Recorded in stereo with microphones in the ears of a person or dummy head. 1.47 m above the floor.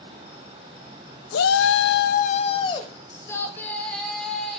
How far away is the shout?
About 0.6 m.